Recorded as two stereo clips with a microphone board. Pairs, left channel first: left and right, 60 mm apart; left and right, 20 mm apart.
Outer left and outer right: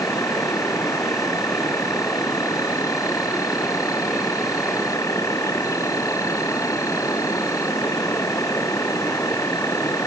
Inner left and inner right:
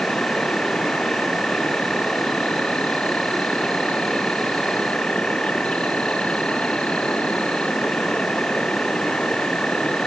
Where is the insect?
70° left (ahead or behind).